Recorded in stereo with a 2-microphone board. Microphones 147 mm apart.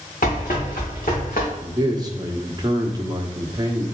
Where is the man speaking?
25° right (ahead or behind), 1.2 m.